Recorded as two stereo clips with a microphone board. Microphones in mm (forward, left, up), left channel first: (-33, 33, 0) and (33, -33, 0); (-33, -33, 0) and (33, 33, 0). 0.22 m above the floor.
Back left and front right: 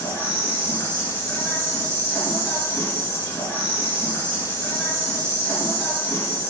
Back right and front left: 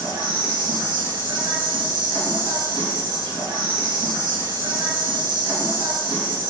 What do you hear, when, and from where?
0.0 s an insect: 65° left, 1.7 m